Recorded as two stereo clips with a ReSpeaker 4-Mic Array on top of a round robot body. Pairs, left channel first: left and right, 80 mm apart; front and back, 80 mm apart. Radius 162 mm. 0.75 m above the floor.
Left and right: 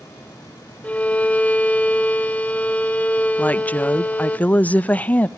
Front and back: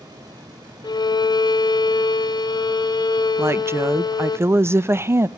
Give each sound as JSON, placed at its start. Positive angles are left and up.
{"t": 0.8, "sound": "a violin", "azimuth_deg": 20, "distance_m": 1.6}
{"t": 3.4, "sound": "a woman speaking", "azimuth_deg": 150, "distance_m": 0.7}